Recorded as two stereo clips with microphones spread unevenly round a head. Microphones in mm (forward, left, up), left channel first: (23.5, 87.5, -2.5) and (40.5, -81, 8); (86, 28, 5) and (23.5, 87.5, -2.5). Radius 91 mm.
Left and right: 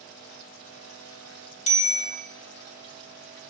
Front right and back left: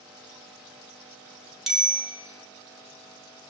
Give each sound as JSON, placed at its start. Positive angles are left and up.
{"t": 1.7, "sound": "a bicycle bell", "azimuth_deg": 50, "distance_m": 3.5}